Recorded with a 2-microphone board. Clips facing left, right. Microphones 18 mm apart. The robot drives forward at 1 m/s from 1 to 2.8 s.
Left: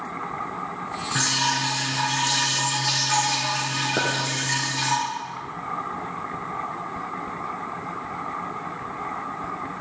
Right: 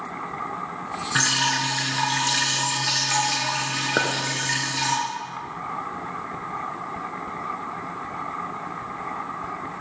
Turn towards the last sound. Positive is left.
turn(degrees=-35)  # may be behind; listen again after turning